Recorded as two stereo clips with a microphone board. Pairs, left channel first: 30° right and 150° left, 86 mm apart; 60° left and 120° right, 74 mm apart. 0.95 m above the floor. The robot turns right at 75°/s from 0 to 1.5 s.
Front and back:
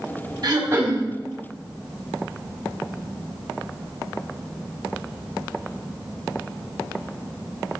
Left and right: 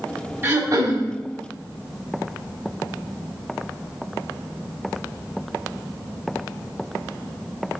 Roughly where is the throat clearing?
Behind.